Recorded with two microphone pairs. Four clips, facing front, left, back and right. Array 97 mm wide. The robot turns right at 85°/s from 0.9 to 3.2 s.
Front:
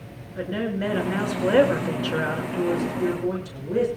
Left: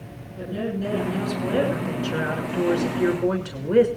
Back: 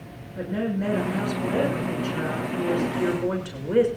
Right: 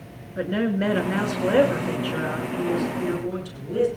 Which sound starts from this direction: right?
A woman speaking, at 0.4 s.